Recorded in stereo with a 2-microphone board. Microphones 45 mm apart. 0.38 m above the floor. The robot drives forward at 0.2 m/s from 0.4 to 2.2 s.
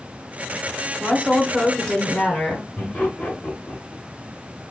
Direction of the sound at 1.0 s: 20° left (ahead or behind).